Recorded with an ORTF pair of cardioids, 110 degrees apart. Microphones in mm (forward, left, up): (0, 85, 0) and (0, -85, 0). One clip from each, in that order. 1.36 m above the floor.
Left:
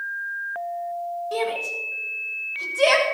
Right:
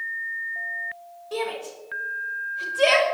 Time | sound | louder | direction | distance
1.3 | a shout | left 2 dB | 5° left | 6.5 m